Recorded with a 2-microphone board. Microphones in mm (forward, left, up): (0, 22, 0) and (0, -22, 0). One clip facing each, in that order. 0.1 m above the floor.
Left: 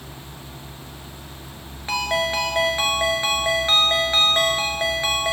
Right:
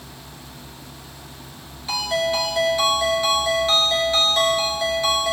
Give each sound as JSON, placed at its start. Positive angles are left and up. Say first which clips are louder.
{"t": 1.9, "sound": "a ringtone", "louder": "even", "side_deg": 35, "distance_m": 1.0}